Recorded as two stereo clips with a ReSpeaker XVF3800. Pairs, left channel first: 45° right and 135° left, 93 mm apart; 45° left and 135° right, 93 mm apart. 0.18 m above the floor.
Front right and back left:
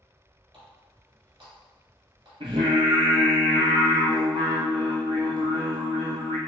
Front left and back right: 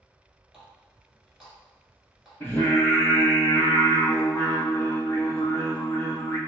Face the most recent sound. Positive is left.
turn(degrees=115)